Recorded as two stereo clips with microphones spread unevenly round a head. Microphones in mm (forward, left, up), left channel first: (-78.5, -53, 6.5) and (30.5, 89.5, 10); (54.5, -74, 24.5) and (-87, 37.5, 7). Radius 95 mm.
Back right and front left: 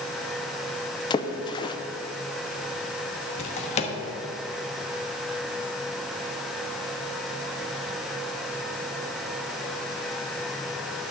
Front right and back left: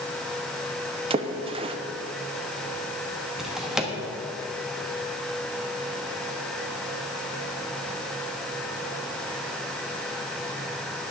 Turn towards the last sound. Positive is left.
turn(degrees=-125)